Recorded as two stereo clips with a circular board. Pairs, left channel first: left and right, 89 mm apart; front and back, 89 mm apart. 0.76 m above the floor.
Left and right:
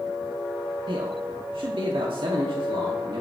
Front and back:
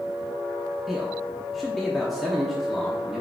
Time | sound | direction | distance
0.9 | a man speaking | 90° right | 1.0 m